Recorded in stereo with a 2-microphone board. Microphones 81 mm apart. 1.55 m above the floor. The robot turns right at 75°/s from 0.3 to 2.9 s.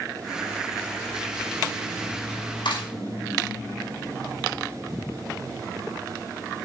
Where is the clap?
80° left, 5 m.